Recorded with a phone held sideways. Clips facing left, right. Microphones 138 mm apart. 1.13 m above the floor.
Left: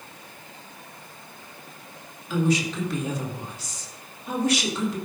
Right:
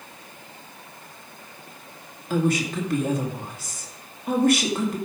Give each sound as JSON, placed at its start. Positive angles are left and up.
{"t": 2.3, "sound": "a woman speaking", "side_deg": -50, "distance_m": 2.0}